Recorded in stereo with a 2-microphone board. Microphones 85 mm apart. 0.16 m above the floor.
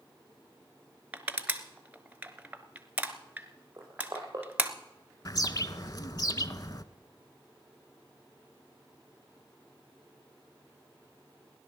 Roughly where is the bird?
Left.